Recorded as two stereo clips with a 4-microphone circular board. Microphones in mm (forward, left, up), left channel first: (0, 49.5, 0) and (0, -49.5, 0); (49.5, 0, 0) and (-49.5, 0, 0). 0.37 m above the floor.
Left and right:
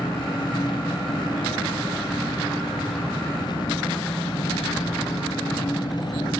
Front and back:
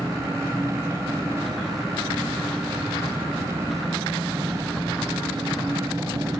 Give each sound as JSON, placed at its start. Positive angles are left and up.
{"t": 0.0, "sound": "an engine running", "azimuth_deg": 125, "distance_m": 1.7}